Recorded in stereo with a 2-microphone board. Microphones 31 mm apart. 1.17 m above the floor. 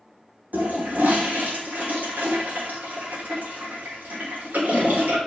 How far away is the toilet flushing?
About 4 m.